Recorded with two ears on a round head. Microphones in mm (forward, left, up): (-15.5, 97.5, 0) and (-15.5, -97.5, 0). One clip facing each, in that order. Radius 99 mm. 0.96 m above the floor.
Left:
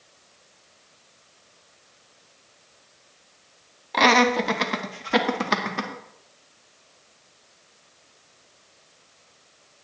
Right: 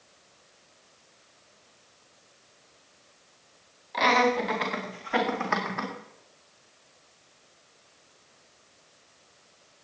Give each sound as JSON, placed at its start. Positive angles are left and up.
{"t": 3.9, "sound": "laughter", "side_deg": 60, "distance_m": 1.5}